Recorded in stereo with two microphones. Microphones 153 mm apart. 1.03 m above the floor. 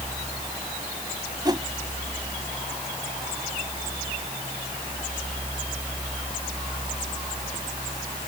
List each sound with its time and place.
1.4 s a whoosh: 25° right (ahead or behind)